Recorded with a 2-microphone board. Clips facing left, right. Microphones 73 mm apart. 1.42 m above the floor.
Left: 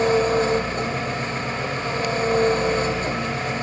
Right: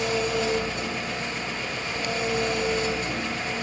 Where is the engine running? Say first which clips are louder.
Left 7 dB; 35° left (ahead or behind), 1.6 m.